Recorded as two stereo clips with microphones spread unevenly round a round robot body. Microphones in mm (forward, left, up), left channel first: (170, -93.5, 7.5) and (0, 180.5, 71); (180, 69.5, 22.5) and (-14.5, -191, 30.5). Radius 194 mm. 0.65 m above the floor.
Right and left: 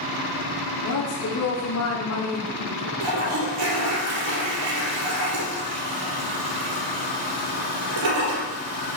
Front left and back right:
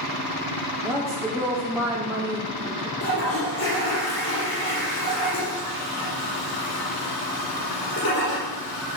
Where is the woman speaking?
45° right, 1.7 m.